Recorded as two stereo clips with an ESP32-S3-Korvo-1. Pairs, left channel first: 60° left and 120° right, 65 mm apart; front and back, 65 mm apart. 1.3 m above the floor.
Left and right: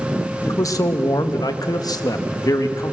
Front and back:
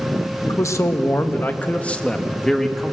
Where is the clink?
I don't hear a clink.